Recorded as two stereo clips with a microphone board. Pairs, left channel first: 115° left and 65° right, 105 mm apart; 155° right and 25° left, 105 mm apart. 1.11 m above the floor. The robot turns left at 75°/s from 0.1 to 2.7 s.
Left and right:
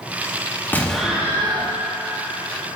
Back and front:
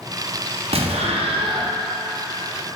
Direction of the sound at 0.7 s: 40° left.